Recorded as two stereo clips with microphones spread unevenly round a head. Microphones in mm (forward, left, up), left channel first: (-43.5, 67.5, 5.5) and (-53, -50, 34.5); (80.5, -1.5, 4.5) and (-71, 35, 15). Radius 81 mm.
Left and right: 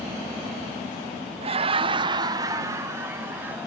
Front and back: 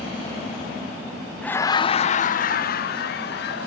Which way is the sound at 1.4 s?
85° right.